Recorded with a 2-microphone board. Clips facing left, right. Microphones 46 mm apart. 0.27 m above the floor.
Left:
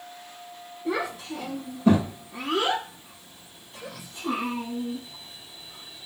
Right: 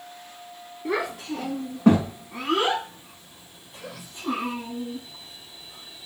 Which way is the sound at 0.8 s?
65° right (ahead or behind).